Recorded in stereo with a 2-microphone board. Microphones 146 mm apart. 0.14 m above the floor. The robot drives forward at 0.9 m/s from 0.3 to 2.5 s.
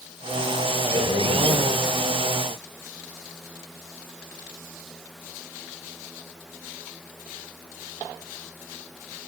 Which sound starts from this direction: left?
A man speaking, at 0.8 s.